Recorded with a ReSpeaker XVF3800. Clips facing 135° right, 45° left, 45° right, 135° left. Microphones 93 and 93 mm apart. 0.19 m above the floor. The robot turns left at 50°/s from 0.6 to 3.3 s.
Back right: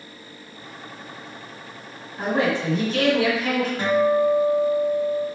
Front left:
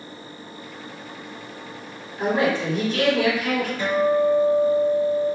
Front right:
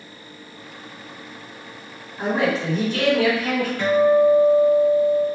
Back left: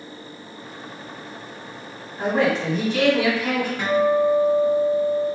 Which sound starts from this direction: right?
A man speaking, at 2.2 s.